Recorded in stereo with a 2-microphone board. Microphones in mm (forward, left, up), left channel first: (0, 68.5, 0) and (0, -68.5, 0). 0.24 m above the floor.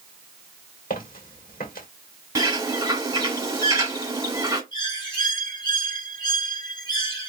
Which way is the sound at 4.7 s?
30° left (ahead or behind).